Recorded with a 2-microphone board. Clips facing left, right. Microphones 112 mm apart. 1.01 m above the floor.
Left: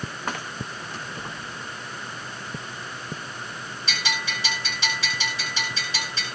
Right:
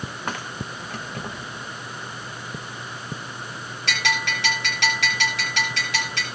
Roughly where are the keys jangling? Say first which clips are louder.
Right 2 dB; right.